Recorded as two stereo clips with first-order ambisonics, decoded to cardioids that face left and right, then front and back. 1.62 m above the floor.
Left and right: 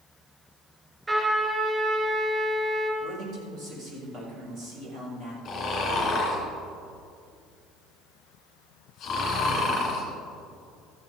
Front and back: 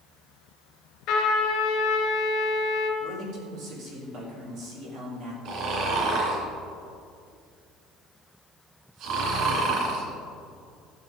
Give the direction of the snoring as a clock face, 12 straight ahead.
7 o'clock.